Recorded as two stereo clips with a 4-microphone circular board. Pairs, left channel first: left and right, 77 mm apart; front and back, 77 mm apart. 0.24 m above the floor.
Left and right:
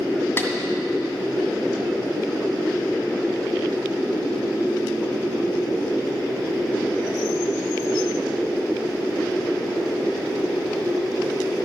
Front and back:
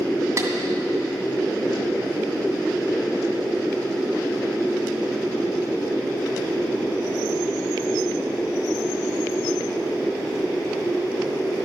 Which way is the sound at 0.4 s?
140° left.